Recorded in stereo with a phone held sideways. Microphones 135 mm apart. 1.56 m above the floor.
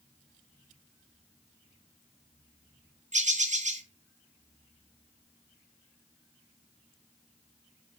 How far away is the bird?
About 0.6 m.